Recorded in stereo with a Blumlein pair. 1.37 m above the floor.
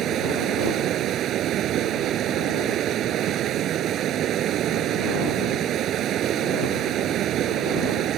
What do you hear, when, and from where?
0.0 s running water: 30° right